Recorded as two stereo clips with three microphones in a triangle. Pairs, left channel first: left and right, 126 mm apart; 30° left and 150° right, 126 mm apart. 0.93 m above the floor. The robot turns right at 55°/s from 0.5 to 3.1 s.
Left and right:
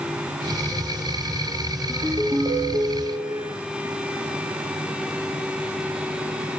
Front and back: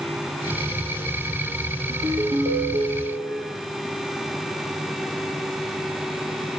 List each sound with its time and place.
1.9 s a ringtone: 175° right, 10 m; by 3.5 s 110° right, 10 m